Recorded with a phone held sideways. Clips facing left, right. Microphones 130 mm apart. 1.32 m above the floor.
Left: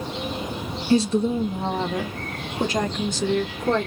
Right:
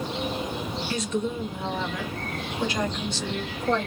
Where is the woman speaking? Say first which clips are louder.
Left 10 dB; 30° left (ahead or behind), 1.0 m; by 3.9 s 45° left (ahead or behind), 2.5 m.